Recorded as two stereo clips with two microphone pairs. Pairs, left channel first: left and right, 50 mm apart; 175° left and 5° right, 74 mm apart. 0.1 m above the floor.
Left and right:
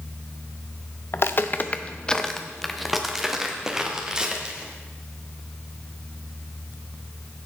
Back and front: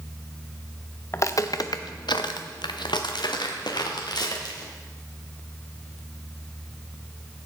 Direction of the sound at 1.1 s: 120° left.